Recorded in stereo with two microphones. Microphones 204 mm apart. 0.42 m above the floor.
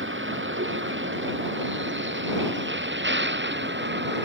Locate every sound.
0.0 s a vehicle: 70° right (ahead or behind); by 4.3 s 60° right (ahead or behind)